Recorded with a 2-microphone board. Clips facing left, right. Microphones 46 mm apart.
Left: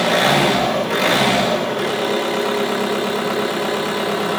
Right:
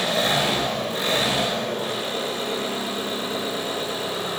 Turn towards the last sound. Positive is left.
turn(degrees=85)